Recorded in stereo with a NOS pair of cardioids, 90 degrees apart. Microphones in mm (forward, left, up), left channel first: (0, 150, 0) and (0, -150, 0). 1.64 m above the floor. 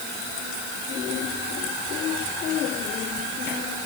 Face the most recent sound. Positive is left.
No sound to turn to.